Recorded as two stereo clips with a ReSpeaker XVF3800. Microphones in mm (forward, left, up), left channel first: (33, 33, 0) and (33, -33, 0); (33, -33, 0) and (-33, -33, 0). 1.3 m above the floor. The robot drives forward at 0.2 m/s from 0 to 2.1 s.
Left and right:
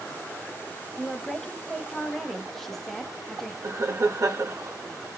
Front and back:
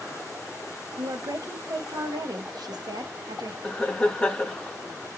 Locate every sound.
1.0 s a woman speaking: 175° left, 0.5 m
3.6 s laughter: 75° right, 0.7 m